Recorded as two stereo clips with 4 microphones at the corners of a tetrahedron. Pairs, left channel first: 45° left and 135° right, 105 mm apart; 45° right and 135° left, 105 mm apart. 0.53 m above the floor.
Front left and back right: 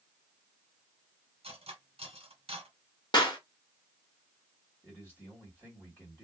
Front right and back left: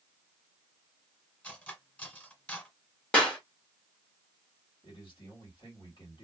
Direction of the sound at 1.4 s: 120° right.